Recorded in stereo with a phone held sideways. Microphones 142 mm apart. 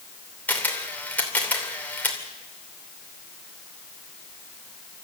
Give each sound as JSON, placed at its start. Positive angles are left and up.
{"t": 0.5, "sound": "a camera shutter", "side_deg": 10, "distance_m": 2.5}